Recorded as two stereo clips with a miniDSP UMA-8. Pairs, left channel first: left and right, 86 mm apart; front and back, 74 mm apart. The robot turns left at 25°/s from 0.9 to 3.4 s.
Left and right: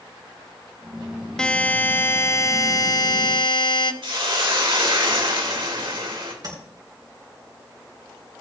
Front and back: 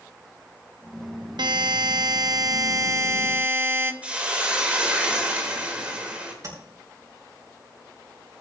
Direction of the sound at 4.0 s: 110° right.